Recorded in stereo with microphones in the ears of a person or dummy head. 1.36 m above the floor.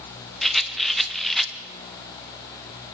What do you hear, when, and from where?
0.4 s a rattle: centre (ahead or behind), 0.8 m